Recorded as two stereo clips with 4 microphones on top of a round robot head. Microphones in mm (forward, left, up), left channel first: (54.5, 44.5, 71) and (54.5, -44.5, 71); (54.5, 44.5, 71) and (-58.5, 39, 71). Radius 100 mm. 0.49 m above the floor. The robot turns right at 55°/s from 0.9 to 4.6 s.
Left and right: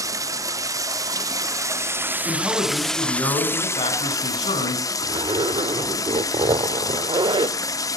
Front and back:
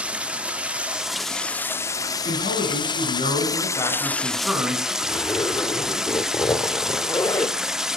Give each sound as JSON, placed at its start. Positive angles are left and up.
{"t": 0.0, "sound": "running water", "azimuth_deg": -105, "distance_m": 1.1}
{"t": 2.2, "sound": "a man speaking", "azimuth_deg": -25, "distance_m": 5.5}
{"t": 5.0, "sound": "a zipper", "azimuth_deg": -65, "distance_m": 1.2}